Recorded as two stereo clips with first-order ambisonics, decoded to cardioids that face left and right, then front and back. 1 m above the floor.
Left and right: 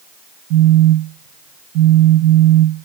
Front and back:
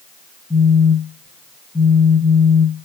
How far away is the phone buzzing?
About 1.2 m.